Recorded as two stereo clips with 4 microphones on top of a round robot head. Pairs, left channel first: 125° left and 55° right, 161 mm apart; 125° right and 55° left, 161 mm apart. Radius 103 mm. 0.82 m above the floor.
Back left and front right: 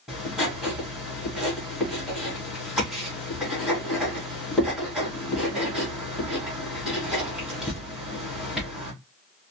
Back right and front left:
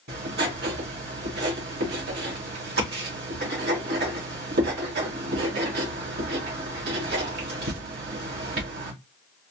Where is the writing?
30° left, 2.0 m.